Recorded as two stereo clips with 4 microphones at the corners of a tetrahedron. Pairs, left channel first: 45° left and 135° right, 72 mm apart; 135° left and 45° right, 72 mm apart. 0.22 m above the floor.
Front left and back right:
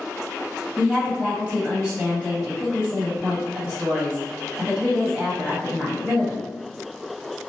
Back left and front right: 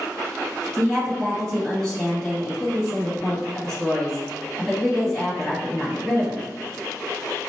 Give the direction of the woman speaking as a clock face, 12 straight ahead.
5 o'clock.